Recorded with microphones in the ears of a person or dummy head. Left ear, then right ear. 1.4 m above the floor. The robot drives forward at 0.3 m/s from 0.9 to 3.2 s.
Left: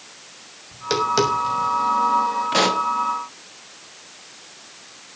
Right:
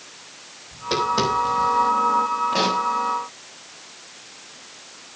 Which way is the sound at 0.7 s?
75° left (ahead or behind).